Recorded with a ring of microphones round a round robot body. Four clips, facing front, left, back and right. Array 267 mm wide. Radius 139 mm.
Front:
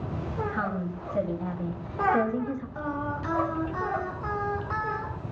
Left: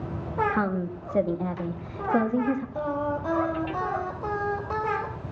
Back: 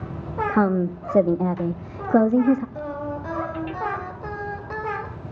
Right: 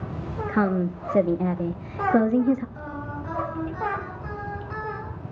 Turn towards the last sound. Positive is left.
turn(degrees=125)